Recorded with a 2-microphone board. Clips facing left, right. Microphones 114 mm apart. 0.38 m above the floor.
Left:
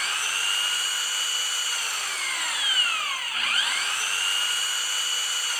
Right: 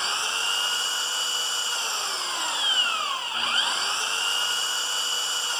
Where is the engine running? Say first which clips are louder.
Right 2 dB; 25° right (ahead or behind).